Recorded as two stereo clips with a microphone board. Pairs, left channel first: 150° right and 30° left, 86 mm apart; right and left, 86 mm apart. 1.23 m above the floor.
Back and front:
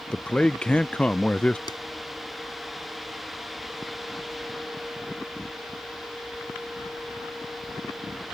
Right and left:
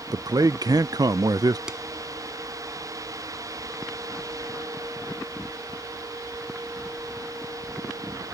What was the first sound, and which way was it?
A man speaking, 130° left.